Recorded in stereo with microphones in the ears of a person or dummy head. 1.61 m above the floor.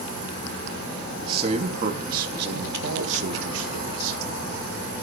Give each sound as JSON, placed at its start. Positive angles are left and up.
{"t": 1.2, "sound": "a man speaking", "side_deg": -25, "distance_m": 1.2}